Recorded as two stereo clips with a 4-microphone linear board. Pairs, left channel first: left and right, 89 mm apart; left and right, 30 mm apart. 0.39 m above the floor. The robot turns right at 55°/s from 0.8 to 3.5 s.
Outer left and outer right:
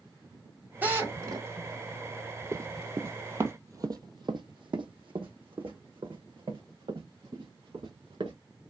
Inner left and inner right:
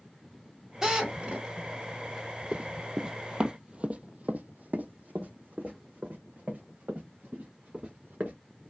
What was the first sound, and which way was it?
A drill, 155° right.